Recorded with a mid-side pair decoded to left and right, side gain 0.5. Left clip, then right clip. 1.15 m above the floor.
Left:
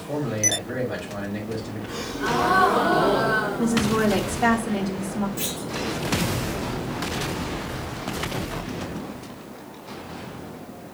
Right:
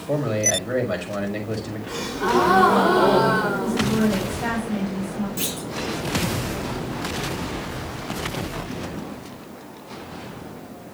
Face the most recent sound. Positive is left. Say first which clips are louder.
# right 1 dB
turn(degrees=-35)